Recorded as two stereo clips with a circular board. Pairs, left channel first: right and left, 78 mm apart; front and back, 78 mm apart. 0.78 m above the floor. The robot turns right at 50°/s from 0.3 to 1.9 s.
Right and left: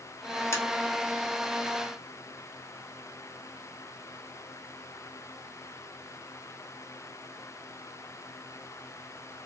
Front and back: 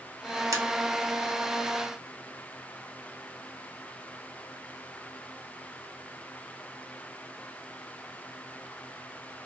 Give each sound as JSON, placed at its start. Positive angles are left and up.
{"t": 0.5, "sound": "tapping", "azimuth_deg": -140, "distance_m": 0.7}